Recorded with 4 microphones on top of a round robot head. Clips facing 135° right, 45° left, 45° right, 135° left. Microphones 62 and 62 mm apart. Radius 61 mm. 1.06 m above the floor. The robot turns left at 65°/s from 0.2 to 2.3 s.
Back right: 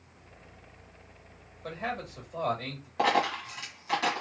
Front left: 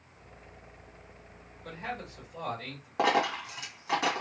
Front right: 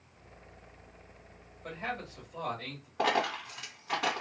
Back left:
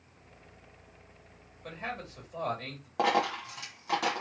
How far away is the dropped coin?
About 1.8 m.